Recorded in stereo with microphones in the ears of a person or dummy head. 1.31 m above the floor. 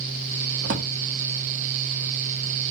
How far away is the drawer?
About 1.3 m.